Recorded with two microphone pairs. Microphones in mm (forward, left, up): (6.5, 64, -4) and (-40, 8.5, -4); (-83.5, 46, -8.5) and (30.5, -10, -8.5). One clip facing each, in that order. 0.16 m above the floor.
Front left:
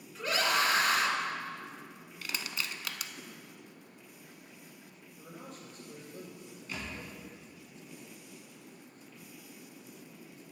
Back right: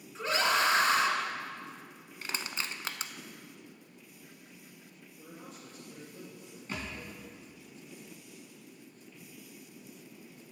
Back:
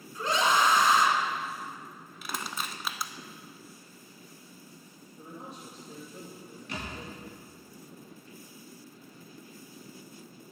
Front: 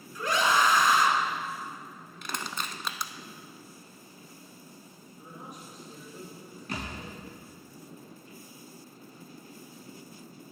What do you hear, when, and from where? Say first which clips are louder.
0.1 s a scream: back right 1 dB, even; 170° right, 1.7 m
2.2 s crushing: back right 1 dB, even; 135° right, 0.5 m
5.2 s a man speaking: front left 1 dB, back 2 dB; 95° left, 3.5 m
6.7 s a thud: back right 2 dB, front 2 dB; 80° right, 4 m